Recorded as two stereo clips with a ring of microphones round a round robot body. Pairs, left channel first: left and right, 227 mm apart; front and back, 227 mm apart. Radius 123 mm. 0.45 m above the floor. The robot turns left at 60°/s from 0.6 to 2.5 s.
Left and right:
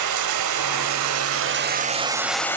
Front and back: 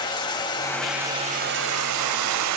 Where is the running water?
75° right, 0.7 m; by 2.6 s 170° left, 0.7 m.